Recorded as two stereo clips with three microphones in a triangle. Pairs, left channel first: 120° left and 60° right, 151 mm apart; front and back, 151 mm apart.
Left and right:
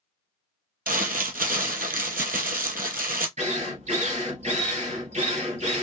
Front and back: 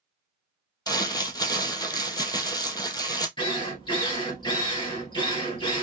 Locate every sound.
0.9 s crumpling: 60° right, 0.8 m
3.4 s a drill: 45° right, 1.6 m